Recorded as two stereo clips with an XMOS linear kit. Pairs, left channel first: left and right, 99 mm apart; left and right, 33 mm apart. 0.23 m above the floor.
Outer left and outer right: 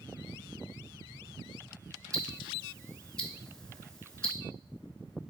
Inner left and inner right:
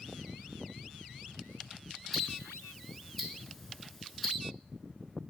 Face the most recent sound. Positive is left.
turn(degrees=10)  # may be behind; listen again after turning